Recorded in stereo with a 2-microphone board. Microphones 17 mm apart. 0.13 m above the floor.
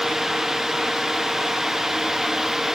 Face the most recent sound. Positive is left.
No sound to turn to.